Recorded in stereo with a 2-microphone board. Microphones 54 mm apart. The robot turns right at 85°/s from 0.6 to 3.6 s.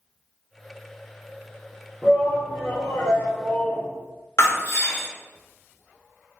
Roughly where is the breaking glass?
Left.